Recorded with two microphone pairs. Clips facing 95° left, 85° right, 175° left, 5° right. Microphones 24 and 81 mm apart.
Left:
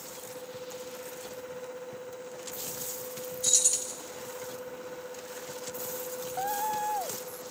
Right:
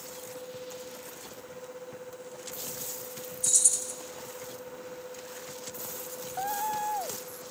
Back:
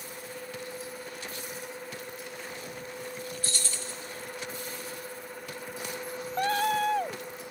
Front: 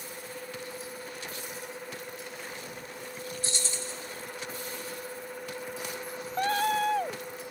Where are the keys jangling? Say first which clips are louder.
Left 1 dB, front 1 dB; 60° left, 0.6 m.